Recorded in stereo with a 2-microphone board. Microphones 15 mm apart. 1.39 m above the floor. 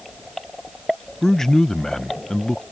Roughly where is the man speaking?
Left.